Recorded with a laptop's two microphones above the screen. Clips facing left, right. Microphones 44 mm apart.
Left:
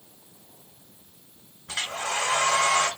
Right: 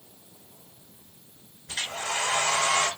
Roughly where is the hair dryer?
Left.